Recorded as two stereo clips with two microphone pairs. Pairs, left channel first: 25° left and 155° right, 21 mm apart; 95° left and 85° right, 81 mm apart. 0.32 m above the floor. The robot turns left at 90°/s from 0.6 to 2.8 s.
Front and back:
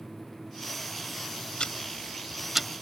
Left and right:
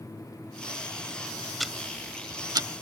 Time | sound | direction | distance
1.6 | ticking | 10° left | ?